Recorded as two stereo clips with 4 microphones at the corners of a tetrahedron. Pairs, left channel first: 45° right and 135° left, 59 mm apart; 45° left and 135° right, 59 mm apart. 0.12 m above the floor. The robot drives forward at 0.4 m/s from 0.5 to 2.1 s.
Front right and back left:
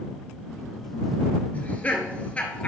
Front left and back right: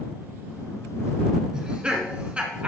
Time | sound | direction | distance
1.5 | laughter | 70° right | 1.6 m